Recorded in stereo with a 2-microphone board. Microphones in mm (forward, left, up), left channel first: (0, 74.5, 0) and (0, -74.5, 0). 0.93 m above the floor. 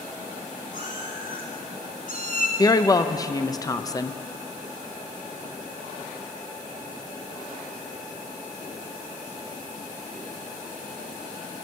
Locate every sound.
0.7 s a cat meowing: 70° left (ahead or behind), 3 m
2.6 s a woman speaking: 25° left (ahead or behind), 0.5 m